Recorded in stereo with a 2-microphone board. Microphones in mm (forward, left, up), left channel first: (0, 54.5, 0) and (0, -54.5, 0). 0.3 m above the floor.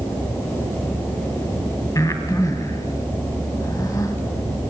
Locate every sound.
1.9 s breathing: 30° left (ahead or behind), 1.9 m